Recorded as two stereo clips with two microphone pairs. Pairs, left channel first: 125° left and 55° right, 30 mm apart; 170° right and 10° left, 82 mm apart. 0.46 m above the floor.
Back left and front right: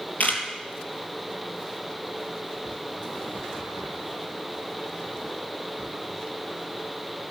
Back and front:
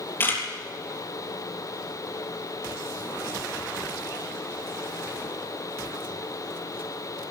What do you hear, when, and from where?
0.2 s a camera shutter: 125° left, 3.5 m